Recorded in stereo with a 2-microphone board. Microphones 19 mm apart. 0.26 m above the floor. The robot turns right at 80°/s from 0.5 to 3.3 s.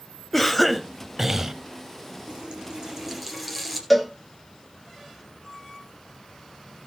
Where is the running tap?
85° right, 3 m; by 3.8 s 5° right, 3 m.